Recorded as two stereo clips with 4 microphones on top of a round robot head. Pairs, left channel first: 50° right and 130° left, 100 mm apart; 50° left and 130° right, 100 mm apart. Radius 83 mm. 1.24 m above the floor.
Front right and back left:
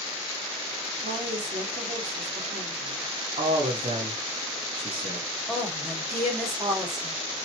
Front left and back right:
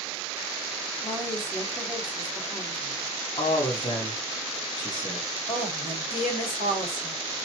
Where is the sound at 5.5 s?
40° left, 3 m.